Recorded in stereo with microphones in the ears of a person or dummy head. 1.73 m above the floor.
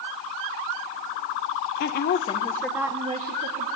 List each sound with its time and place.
1.8 s a woman speaking: 45° left (ahead or behind), 1.2 m; by 3.7 s 45° right (ahead or behind), 1.5 m